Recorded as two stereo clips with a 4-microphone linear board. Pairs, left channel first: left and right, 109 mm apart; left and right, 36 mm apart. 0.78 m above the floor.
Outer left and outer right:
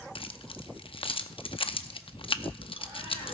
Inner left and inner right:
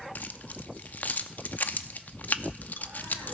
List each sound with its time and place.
0.1 s keys jangling: 55° left (ahead or behind), 0.6 m